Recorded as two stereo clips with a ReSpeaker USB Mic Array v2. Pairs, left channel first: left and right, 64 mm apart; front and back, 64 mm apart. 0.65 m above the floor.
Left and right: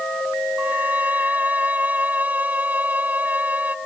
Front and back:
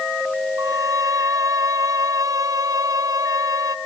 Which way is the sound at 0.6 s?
155° right.